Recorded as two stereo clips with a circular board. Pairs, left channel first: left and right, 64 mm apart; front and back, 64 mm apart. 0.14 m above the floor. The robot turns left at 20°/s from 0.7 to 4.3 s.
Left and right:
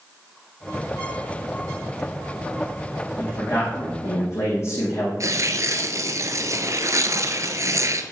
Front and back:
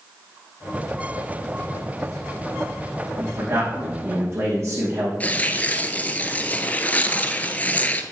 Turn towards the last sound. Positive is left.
turn(degrees=-65)